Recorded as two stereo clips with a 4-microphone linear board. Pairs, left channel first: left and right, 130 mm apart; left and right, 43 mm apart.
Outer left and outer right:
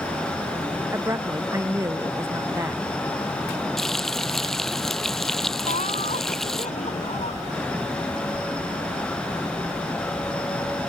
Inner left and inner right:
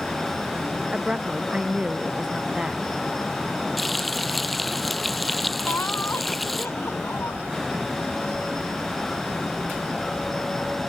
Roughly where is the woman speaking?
Right.